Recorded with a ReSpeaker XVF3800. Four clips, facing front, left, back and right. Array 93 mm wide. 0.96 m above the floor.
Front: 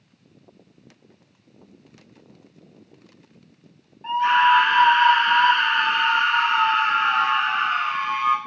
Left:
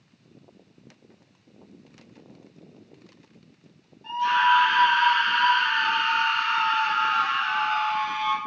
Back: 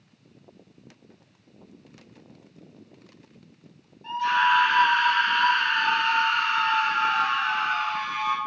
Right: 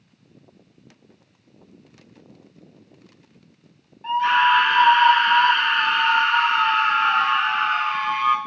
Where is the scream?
50° right, 2 m.